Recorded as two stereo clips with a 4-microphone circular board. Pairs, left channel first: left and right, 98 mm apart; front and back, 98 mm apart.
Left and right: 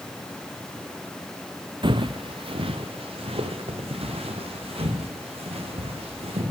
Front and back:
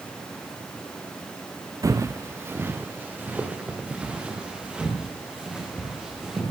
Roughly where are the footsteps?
Behind right.